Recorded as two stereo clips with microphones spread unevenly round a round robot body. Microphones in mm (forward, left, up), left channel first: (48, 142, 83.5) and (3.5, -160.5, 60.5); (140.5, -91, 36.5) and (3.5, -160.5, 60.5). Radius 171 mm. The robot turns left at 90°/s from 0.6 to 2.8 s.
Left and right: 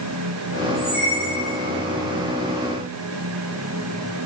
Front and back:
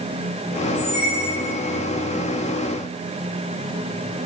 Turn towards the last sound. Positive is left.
turn(degrees=-175)